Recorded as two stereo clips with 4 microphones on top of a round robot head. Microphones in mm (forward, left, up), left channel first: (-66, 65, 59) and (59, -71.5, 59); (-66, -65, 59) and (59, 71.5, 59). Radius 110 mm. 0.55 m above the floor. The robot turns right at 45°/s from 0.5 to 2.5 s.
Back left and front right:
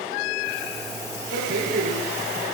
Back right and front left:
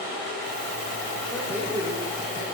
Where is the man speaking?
40° right, 2.5 m; by 2.5 s 10° left, 2.5 m.